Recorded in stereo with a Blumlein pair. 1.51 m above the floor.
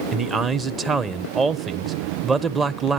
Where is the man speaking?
15° right, 1.0 m.